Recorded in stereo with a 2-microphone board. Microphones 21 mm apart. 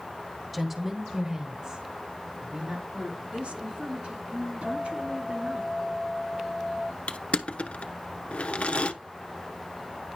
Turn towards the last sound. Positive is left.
turn(degrees=80)